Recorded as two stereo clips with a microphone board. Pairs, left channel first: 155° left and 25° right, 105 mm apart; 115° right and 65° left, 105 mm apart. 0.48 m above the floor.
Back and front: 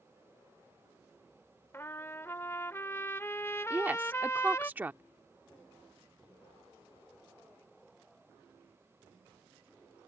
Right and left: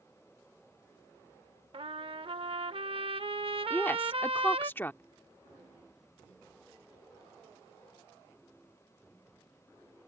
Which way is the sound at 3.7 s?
75° right.